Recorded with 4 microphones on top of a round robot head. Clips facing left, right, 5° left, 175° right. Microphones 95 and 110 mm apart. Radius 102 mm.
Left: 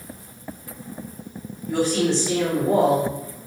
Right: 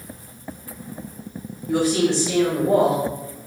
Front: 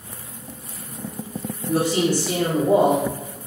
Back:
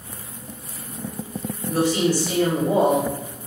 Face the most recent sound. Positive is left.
turn(degrees=-5)